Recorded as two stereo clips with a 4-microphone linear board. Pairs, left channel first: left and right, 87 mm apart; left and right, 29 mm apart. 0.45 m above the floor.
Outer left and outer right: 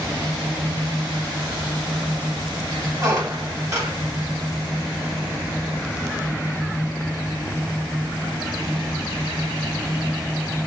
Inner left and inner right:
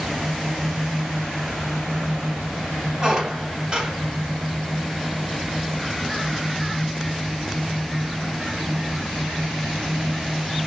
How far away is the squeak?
About 1.2 m.